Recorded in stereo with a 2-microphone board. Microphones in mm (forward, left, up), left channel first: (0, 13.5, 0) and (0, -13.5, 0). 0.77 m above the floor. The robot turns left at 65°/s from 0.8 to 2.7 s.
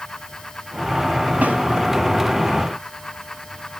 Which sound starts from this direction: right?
A snare drum, at 1.4 s.